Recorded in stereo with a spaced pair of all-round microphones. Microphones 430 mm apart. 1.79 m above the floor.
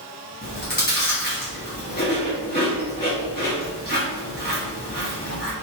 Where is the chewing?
25° left (ahead or behind), 1.2 m.